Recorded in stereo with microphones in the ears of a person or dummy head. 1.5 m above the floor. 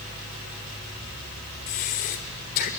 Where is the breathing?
40° left (ahead or behind), 1.6 m.